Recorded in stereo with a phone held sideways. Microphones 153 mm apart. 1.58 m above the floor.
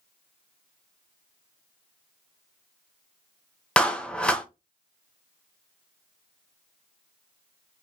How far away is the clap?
About 0.7 m.